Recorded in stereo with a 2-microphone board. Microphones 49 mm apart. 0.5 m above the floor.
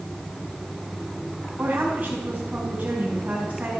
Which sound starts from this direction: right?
A woman speaking, at 1.6 s.